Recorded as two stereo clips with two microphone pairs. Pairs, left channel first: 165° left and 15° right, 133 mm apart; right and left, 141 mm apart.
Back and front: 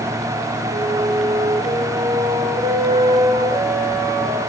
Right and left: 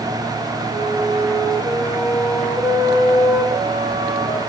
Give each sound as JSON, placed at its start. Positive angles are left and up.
{"t": 0.7, "sound": "a flute", "azimuth_deg": 0, "distance_m": 6.0}